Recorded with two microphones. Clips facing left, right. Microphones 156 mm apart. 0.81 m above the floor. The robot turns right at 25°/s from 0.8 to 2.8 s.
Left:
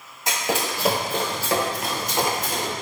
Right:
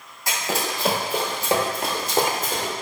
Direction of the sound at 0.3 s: 20° left (ahead or behind).